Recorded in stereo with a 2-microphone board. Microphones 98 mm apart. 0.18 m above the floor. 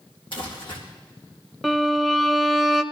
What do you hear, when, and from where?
0.3 s crumpling: 60° left (ahead or behind), 4 m
1.6 s a violin: centre (ahead or behind), 0.6 m